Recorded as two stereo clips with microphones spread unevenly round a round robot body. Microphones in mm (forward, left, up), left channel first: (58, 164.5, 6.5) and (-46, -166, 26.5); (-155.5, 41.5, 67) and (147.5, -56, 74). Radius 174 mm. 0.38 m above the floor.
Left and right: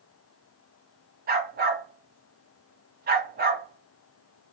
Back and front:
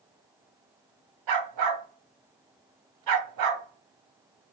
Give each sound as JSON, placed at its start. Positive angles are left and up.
{"t": 1.3, "sound": "a dog barking", "azimuth_deg": -40, "distance_m": 1.1}